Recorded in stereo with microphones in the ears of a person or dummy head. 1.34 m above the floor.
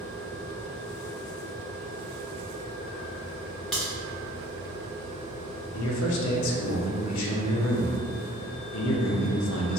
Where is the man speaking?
75° left (ahead or behind), 0.5 m.